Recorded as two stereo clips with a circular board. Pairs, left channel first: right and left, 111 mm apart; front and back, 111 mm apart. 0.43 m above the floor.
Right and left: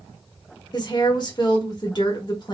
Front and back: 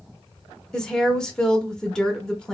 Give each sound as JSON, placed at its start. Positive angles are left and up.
{"t": 0.7, "sound": "a woman speaking", "azimuth_deg": -80, "distance_m": 1.0}